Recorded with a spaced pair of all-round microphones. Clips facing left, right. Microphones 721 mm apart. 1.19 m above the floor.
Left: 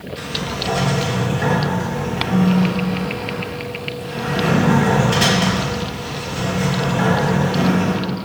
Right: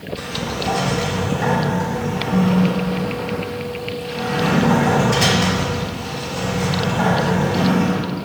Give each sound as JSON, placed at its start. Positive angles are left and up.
{"t": 0.2, "sound": "a sliding door", "side_deg": 60, "distance_m": 6.5}